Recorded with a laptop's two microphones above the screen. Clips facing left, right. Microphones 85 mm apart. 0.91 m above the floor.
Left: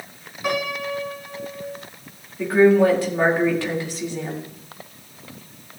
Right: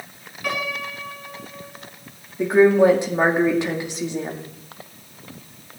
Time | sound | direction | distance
0.4 | a piano | 20° left (ahead or behind) | 3 m
2.4 | a woman speaking | 20° right (ahead or behind) | 1.8 m